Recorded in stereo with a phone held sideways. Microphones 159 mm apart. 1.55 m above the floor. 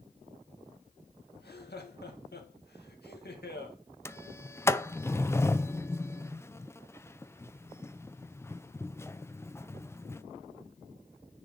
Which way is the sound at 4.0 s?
15° left (ahead or behind).